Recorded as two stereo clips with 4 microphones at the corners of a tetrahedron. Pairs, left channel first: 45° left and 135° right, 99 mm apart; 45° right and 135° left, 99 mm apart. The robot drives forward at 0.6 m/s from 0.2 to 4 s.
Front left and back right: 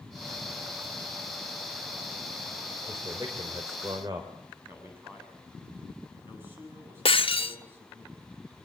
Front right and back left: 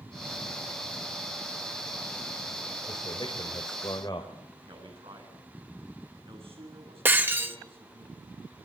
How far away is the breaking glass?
About 1.7 m.